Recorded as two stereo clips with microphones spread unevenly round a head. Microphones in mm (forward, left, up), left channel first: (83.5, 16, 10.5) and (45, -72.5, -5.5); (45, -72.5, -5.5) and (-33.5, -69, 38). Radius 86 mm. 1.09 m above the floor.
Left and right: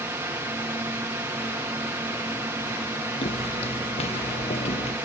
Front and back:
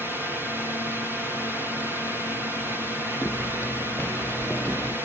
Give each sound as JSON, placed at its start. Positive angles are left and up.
{"t": 0.0, "sound": "a drone", "azimuth_deg": -90}
{"t": 3.2, "sound": "footsteps", "azimuth_deg": 75}